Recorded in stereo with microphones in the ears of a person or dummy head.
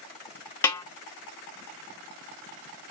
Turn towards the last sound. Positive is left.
turn(degrees=15)  # may be behind; listen again after turning